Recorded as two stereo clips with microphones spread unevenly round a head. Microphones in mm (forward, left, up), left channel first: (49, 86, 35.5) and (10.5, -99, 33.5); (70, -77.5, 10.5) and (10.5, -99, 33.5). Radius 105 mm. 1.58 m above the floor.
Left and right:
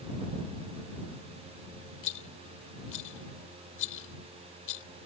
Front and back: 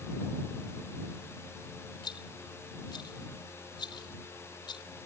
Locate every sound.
2.0 s a rattle: 65° left